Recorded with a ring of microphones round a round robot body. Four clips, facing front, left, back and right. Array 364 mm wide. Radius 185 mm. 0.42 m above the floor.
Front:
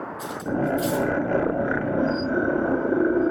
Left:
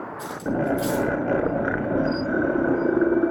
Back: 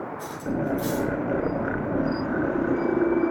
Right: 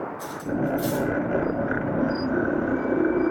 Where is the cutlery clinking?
30° left, 4 m.